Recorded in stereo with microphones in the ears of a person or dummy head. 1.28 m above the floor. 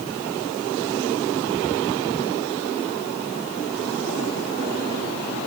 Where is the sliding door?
No sliding door in this recording.